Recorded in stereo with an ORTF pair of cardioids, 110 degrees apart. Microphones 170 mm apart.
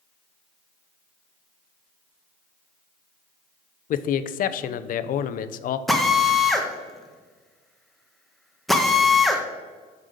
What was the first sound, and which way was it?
A man speaking, 55° left.